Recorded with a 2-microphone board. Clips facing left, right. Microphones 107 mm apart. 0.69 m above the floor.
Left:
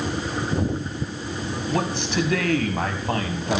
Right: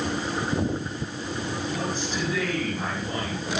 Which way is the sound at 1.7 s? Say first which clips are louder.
Left 9 dB; 70° left (ahead or behind).